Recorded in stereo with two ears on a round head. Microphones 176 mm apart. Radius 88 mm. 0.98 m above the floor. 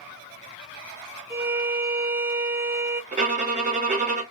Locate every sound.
1.3 s a violin: 10° right (ahead or behind), 0.6 m
3.1 s a violin: 35° right (ahead or behind), 1.2 m